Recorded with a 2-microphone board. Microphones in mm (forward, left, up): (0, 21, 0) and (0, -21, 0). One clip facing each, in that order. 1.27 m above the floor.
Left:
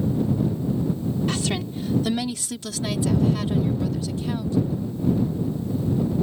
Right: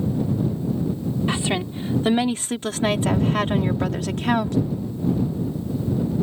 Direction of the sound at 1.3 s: 25° right (ahead or behind).